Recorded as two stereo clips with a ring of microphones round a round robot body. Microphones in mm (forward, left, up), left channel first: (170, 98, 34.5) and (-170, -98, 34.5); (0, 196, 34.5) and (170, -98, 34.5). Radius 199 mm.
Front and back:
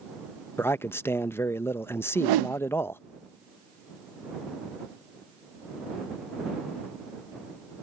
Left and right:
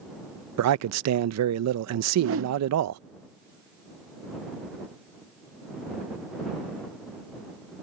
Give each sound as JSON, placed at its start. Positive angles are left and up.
{"t": 0.6, "sound": "a man speaking", "azimuth_deg": -50}
{"t": 2.1, "sound": "a whoosh", "azimuth_deg": -115}